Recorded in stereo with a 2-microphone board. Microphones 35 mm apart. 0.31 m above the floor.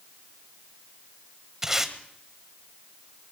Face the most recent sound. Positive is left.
turn(degrees=-15)  # may be behind; listen again after turning